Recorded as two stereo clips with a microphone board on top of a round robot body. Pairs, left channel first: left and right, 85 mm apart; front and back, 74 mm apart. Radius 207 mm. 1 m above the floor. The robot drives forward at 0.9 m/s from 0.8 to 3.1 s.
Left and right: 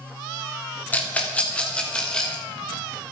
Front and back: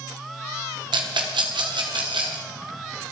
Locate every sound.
0.9 s a rattle: 160° left, 1.4 m; by 2.4 s 170° left, 2.5 m